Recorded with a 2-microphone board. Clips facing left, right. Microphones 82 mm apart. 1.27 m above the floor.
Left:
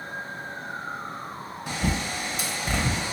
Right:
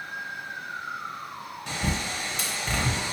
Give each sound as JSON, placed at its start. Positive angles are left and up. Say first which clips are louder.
{"t": 1.7, "sound": "a bird", "louder": "left 2 dB", "side_deg": 10, "distance_m": 0.8}